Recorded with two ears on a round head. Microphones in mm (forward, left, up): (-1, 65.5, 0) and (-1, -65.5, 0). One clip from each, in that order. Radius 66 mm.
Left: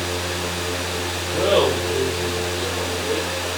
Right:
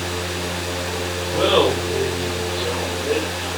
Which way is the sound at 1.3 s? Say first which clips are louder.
Right 1 dB; 45° right (ahead or behind).